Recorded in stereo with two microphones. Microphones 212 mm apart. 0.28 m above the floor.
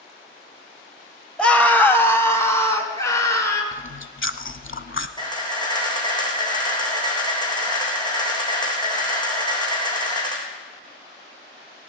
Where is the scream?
5° left (ahead or behind), 1.0 m; by 3.6 s 15° left (ahead or behind), 3.5 m.